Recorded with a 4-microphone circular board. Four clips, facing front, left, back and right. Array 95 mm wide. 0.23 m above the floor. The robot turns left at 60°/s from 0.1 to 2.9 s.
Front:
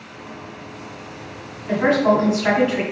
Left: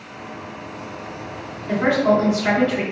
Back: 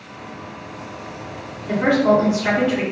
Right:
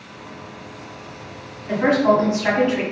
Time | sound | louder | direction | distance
1.7 | a woman speaking | right 1 dB, back 1 dB | 20° right | 1.5 m